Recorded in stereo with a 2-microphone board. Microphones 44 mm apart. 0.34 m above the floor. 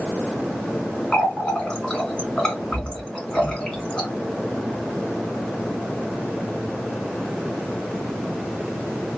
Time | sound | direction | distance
1.1 | a running tap | 20° left (ahead or behind) | 2 m